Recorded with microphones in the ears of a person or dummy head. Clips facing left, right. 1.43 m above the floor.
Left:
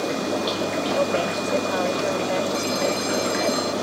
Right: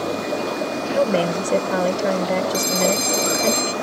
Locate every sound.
0.9 s a woman speaking: 40° right (ahead or behind)
2.5 s a phone ringing: 45° right (ahead or behind)